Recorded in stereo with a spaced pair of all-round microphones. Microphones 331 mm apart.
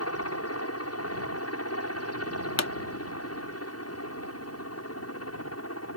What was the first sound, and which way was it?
A helicopter, 45° left (ahead or behind).